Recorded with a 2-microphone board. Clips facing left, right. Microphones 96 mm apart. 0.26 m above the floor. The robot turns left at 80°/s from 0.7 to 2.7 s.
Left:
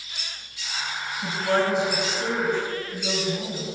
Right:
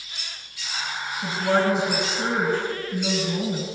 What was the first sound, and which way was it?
A woman speaking, 5° right.